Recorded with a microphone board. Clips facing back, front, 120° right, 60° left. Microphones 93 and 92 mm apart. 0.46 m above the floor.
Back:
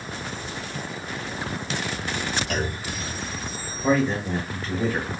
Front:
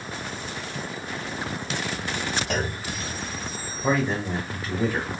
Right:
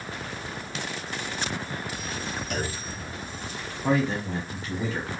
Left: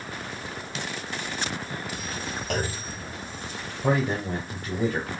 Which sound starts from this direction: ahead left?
A clunk, at 2.5 s.